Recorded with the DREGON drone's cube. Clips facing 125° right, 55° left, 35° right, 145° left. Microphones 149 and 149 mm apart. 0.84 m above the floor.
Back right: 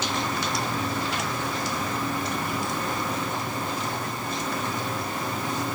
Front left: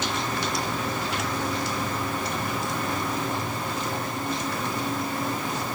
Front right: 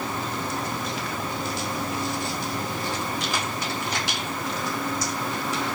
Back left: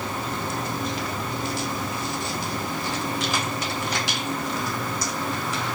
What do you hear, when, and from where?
Only background noise.